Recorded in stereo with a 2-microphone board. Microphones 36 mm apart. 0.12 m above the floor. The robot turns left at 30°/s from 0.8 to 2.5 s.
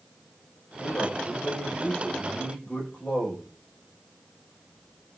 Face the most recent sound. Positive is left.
turn(degrees=35)